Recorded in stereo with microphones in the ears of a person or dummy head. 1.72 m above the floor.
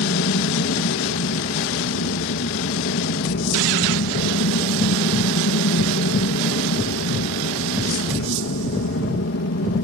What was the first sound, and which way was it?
An aircraft, 55° left (ahead or behind).